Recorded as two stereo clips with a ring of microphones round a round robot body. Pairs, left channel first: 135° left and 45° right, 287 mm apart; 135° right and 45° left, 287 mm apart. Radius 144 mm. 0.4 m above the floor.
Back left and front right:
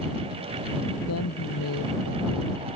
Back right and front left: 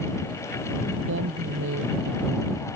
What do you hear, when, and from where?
1.1 s a woman speaking: 95° left